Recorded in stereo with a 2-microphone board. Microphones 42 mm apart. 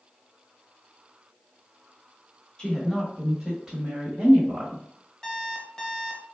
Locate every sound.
2.6 s a woman speaking: 20° left (ahead or behind), 1.1 m; by 4.8 s 40° right (ahead or behind), 1.5 m
5.2 s an alarm clock: 10° left (ahead or behind), 0.9 m